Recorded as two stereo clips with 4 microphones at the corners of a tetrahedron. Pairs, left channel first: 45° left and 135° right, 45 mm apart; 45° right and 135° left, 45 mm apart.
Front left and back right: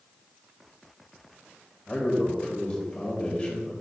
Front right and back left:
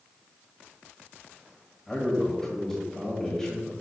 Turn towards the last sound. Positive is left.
turn(degrees=15)